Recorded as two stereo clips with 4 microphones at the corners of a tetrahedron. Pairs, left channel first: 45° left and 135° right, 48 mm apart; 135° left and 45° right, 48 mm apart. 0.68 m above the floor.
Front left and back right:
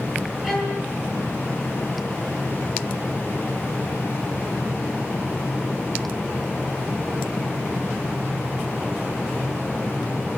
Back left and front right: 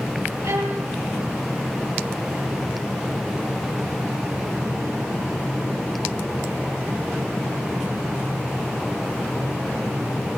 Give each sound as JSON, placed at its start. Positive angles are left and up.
{"t": 0.4, "sound": "a violin", "azimuth_deg": -50, "distance_m": 8.5}